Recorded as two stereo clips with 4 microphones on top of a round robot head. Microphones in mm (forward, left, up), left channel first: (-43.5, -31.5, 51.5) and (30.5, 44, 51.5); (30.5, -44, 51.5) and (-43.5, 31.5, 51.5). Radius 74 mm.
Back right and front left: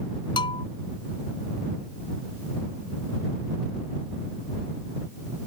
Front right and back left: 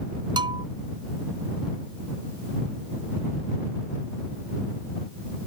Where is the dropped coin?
No dropped coin in this recording.